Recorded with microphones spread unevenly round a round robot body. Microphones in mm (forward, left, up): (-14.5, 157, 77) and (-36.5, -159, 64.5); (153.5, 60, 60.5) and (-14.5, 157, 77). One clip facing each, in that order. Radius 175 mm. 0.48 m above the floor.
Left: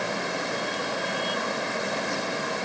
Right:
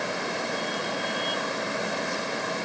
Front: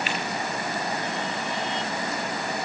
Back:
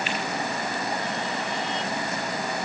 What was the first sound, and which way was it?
Only background noise.